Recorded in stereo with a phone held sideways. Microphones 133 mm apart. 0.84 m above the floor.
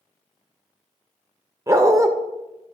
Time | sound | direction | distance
1.7 | a dog barking | 25° right (ahead or behind) | 0.7 m